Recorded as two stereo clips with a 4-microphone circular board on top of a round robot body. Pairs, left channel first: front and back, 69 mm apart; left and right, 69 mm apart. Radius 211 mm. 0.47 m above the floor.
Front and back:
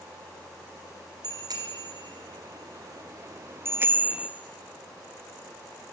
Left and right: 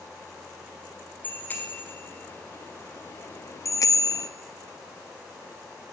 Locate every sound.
1.2 s a bicycle bell: 155° left, 2 m; by 4.3 s 100° left, 0.7 m